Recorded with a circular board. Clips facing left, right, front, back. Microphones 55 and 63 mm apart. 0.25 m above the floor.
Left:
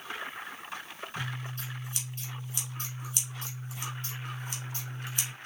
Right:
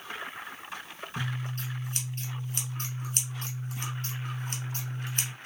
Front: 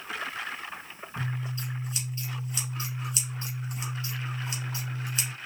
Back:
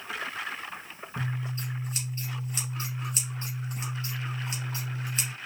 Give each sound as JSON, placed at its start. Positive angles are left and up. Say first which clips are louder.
{"t": 1.2, "sound": "scissors", "louder": "right 3 dB, even", "azimuth_deg": -130, "distance_m": 2.5}